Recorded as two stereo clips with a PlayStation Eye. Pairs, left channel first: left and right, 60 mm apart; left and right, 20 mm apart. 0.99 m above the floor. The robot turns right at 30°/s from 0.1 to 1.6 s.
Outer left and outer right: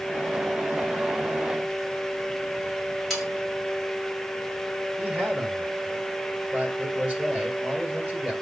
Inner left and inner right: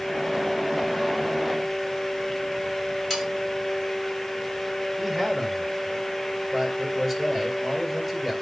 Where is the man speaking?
20° right (ahead or behind), 4.5 m.